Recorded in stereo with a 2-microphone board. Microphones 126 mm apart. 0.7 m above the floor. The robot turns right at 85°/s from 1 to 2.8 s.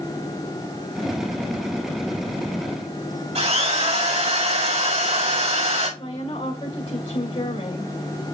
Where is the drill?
60° right (ahead or behind), 4 m.